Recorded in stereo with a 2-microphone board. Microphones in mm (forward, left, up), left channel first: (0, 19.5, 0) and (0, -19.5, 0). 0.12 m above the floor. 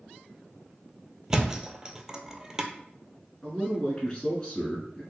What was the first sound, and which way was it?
A thud, 15° right (ahead or behind).